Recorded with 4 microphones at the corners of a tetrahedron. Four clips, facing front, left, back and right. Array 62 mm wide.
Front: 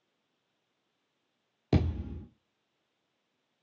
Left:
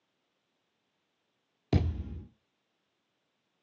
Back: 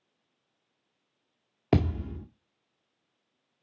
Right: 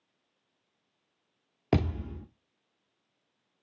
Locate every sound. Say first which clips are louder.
1.7 s a thud: right 3 dB, back 4 dB; 135° right, 1.7 m